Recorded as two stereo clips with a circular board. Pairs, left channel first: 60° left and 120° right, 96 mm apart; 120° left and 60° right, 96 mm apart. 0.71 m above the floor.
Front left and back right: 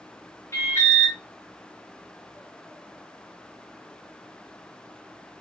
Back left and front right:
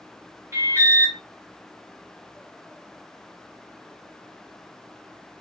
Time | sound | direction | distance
0.5 | an alarm | straight ahead | 1.8 m